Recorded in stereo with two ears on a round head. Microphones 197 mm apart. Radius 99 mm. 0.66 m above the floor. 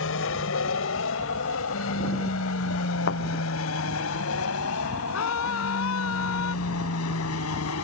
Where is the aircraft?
65° left (ahead or behind); by 7.8 s 75° left (ahead or behind).